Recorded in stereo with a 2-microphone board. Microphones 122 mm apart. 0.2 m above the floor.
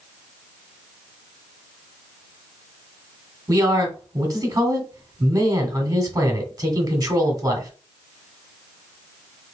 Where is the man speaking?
35° right (ahead or behind), 1.5 m.